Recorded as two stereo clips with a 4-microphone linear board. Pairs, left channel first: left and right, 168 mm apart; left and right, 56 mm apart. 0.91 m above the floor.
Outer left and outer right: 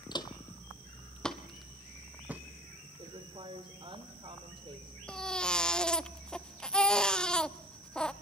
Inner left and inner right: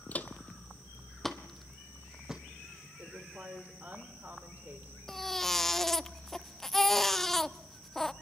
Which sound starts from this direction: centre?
A baby crying, at 5.1 s.